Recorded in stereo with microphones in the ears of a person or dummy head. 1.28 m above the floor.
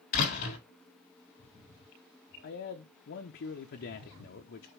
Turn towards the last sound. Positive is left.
turn(degrees=50)  # may be behind; listen again after turning